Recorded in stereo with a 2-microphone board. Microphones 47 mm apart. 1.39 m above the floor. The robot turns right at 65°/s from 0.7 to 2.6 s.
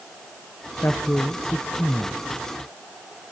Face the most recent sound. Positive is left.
turn(degrees=-175)